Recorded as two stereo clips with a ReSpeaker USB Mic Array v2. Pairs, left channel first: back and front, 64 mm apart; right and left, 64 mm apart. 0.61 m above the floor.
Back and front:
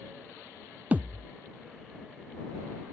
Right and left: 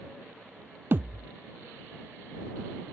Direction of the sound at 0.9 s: 55° left.